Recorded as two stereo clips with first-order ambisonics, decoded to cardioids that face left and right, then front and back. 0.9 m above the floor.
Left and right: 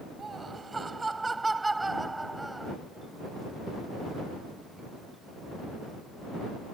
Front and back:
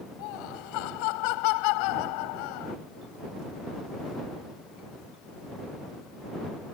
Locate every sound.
0.2 s laughter: 15° right; by 2.8 s 5° right